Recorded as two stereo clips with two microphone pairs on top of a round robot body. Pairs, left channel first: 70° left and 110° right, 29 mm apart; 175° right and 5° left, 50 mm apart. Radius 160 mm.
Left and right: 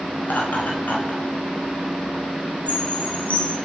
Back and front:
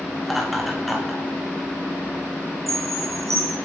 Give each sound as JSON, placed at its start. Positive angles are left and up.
{"t": 0.2, "sound": "laughter", "azimuth_deg": 95, "distance_m": 5.5}
{"t": 2.7, "sound": "a chime", "azimuth_deg": 25, "distance_m": 2.5}